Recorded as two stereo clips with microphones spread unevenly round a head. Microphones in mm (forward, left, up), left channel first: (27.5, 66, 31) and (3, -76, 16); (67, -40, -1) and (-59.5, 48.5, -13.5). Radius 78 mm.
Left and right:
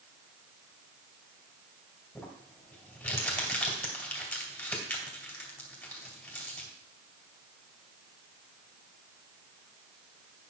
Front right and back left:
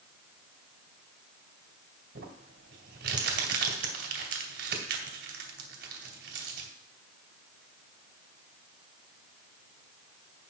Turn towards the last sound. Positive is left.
turn(degrees=155)